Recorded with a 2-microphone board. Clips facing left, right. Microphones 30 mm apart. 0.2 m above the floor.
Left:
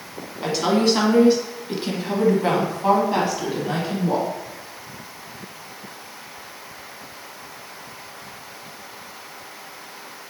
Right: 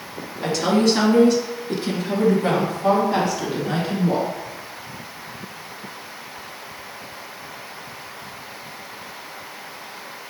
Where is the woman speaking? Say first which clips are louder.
Right 1 dB; 15° left (ahead or behind), 1.4 m; by 4.3 s 20° left (ahead or behind), 1.5 m.